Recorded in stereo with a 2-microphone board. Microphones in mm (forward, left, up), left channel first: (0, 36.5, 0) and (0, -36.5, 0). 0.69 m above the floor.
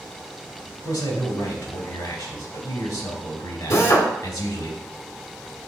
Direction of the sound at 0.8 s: 70° left (ahead or behind).